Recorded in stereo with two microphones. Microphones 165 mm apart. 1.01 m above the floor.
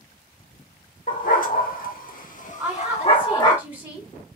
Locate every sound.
1.1 s a dog barking: 50° left (ahead or behind), 1.2 m; by 3.6 s 25° left (ahead or behind), 1.1 m
2.6 s a woman speaking: 10° right (ahead or behind), 2 m